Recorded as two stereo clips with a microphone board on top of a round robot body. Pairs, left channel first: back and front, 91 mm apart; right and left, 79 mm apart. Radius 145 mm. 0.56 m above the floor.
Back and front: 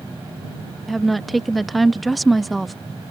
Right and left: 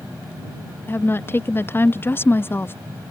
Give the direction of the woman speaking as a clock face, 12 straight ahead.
3 o'clock.